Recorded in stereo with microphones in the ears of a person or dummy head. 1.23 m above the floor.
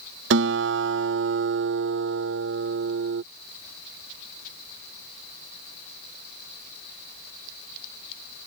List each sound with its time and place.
0.3 s a guitar: 70° right (ahead or behind)